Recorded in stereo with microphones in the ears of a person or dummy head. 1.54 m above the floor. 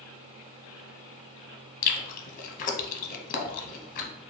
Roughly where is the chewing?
Left.